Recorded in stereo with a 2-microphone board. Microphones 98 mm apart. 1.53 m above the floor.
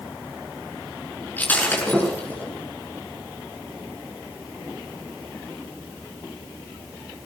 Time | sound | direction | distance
1.4 | breaking glass | 20° left (ahead or behind) | 7.5 m